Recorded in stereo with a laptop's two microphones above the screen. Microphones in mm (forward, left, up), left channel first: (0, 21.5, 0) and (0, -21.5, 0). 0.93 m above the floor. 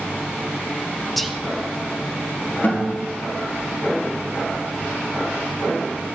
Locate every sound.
1.2 s whispering: centre (ahead or behind), 0.8 m
2.6 s a guitar: 50° left (ahead or behind), 3.5 m